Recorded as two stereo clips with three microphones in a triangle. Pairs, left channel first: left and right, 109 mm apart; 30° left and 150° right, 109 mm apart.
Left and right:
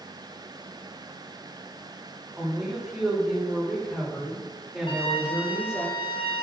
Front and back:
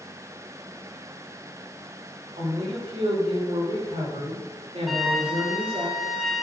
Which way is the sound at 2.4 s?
175° right.